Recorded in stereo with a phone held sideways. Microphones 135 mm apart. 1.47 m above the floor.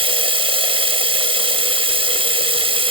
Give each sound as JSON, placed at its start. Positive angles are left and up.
{"t": 0.0, "sound": "running water", "side_deg": -40, "distance_m": 0.7}